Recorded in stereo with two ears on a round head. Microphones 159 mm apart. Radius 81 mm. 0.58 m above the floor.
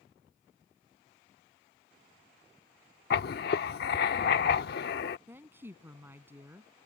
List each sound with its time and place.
3.1 s writing: 65° left (ahead or behind)
5.3 s a woman speaking: 10° right (ahead or behind)